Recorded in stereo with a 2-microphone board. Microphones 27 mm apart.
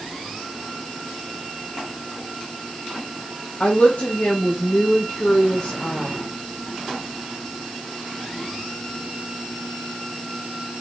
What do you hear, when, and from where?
3.6 s a woman speaking: 45° left (ahead or behind), 1.4 m